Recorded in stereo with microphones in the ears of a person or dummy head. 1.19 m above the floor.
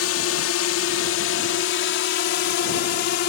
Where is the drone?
75° left (ahead or behind); by 3.3 s 60° left (ahead or behind).